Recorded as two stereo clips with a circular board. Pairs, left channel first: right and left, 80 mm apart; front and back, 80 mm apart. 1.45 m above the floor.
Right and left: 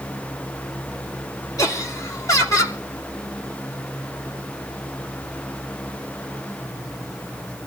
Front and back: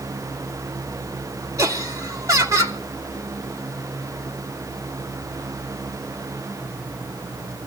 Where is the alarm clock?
No alarm clock in this recording.